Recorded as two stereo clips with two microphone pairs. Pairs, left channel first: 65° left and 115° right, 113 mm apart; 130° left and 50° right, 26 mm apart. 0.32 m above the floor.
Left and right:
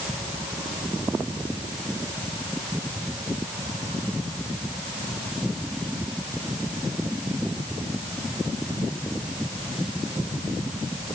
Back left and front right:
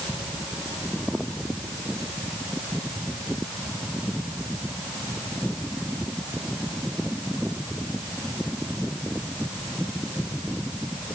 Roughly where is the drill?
No drill in this recording.